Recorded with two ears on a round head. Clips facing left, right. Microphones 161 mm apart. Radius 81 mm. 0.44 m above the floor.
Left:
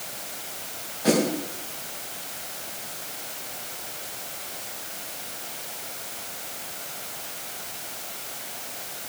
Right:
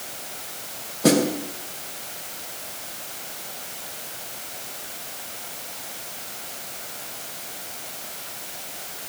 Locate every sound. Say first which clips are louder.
1.0 s a snare drum: right 3 dB; 60° right (ahead or behind), 3.5 m